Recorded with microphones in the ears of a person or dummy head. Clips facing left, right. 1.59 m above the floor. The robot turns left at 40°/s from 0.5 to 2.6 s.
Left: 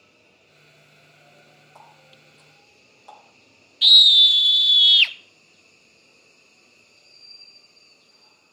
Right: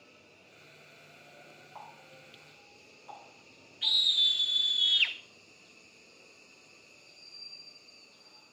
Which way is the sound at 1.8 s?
30° left (ahead or behind).